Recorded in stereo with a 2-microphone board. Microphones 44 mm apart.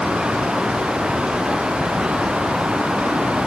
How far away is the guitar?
I don't hear a guitar.